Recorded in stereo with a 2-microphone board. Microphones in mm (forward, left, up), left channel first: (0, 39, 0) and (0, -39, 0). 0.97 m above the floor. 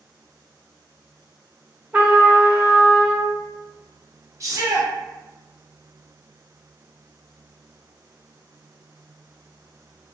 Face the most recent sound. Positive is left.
turn(degrees=-40)  # may be behind; listen again after turning